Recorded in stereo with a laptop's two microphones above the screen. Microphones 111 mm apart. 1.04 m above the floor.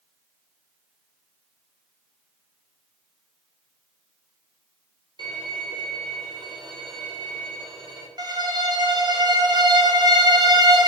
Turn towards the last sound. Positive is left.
turn(degrees=-40)  # may be behind; listen again after turning